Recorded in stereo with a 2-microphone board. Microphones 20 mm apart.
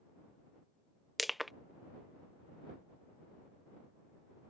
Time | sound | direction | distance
1.2 | crushing | centre (ahead or behind) | ?